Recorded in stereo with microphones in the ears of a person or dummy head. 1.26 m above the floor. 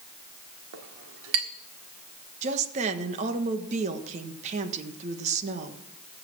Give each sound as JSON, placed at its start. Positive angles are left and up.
{"t": 0.7, "sound": "a clink", "side_deg": -70, "distance_m": 1.6}
{"t": 2.4, "sound": "a woman speaking", "side_deg": -40, "distance_m": 1.4}